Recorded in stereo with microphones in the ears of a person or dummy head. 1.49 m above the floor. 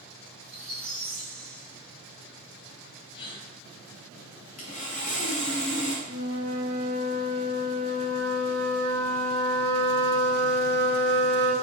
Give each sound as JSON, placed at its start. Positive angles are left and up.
{"t": 0.4, "sound": "a squeak", "side_deg": -40, "distance_m": 1.3}
{"t": 3.1, "sound": "a gasp", "side_deg": 25, "distance_m": 0.7}
{"t": 4.6, "sound": "sawing", "side_deg": 35, "distance_m": 0.6}
{"t": 6.1, "sound": "a flute", "side_deg": -55, "distance_m": 1.1}